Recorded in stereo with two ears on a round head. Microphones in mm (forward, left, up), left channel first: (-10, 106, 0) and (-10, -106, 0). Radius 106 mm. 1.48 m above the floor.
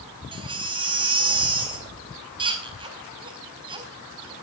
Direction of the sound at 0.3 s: 20° right (ahead or behind).